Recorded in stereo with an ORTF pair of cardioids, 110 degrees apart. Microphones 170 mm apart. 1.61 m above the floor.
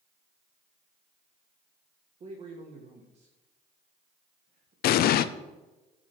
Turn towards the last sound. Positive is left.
turn(degrees=65)